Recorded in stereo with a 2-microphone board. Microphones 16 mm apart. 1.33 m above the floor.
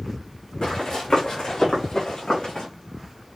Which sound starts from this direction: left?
Running footsteps, at 0.6 s.